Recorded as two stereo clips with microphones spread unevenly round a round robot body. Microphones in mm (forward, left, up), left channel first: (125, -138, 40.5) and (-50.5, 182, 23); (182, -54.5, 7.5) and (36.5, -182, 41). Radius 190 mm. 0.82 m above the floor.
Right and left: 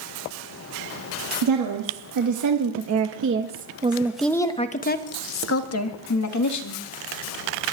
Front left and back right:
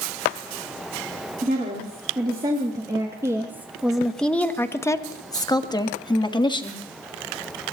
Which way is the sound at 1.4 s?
150° left.